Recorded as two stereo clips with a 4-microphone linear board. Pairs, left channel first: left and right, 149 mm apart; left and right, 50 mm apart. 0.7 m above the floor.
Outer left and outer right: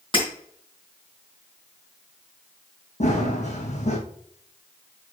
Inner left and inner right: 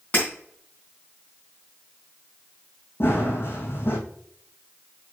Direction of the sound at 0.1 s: 35° left (ahead or behind).